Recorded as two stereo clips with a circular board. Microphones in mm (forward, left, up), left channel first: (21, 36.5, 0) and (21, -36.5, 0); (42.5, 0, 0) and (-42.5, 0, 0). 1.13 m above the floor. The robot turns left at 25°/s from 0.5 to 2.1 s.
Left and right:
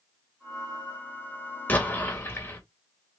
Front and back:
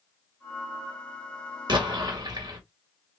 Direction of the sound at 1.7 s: 155° left.